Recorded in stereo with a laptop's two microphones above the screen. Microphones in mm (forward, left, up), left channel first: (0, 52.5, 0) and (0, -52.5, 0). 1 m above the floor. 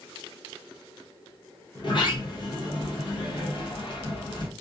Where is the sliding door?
50° left (ahead or behind), 0.6 m.